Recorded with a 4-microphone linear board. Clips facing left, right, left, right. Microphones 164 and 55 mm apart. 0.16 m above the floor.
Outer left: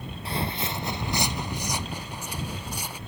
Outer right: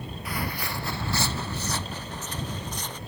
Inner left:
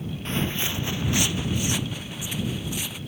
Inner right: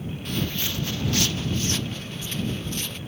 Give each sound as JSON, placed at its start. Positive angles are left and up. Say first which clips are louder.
{"t": 0.2, "sound": "footsteps", "louder": "outer left 3 dB, inner left 2 dB", "side_deg": 30}